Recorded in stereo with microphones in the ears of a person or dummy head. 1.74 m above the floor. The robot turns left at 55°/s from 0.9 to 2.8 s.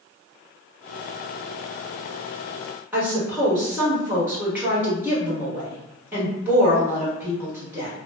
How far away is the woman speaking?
About 1.6 m.